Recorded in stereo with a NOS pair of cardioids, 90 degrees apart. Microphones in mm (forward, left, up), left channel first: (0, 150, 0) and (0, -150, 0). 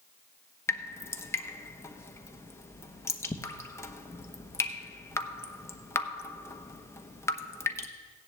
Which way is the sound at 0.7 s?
10° left.